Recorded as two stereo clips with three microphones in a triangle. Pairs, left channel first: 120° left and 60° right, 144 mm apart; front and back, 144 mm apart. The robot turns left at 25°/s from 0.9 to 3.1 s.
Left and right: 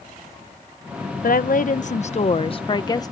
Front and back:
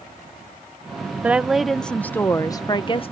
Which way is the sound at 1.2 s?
100° left.